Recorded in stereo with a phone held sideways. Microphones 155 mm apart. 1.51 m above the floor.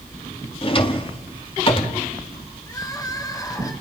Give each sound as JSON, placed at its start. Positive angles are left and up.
{"t": 0.6, "sound": "a drawer", "side_deg": 35, "distance_m": 1.7}
{"t": 2.7, "sound": "crying", "side_deg": 25, "distance_m": 3.0}